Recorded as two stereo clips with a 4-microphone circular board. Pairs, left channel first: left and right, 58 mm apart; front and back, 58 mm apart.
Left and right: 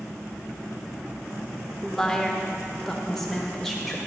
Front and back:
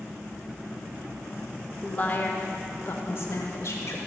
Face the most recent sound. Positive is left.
turn(degrees=5)